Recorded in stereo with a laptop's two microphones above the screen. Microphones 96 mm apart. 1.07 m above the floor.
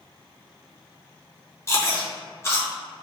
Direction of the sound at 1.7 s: 30° left (ahead or behind).